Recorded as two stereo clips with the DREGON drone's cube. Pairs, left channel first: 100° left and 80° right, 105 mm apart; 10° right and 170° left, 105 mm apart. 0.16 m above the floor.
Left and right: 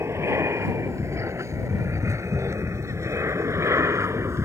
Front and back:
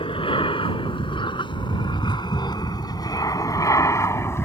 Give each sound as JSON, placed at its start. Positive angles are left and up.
{"t": 0.0, "sound": "an aircraft", "azimuth_deg": -20}